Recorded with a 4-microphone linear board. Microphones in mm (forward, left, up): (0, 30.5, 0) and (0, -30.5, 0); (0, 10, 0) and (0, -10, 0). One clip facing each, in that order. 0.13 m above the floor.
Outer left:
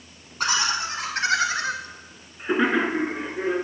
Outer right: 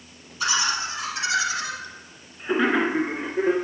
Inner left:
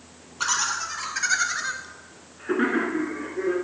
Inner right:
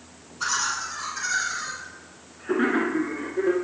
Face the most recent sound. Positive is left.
turn(degrees=-25)  # may be behind; listen again after turning